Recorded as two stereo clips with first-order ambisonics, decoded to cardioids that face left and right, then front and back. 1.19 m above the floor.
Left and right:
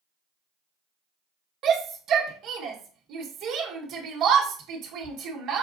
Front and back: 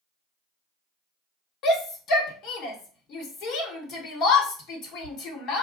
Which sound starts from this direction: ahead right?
A shout, at 1.6 s.